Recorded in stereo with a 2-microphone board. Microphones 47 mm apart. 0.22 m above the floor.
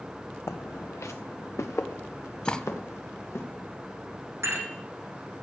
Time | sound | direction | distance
0.5 | footsteps | 70° left (ahead or behind) | 0.6 m
2.5 | cutlery clinking | 20° left (ahead or behind) | 0.6 m
4.4 | dishes clattering | 60° right (ahead or behind) | 9 m